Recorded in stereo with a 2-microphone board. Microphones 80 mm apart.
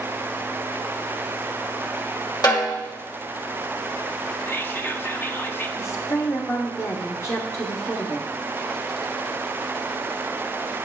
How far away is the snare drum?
About 2.0 m.